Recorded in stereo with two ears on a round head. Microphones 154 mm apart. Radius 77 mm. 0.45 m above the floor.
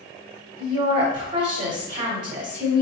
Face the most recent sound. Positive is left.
turn(degrees=-50)  # may be behind; listen again after turning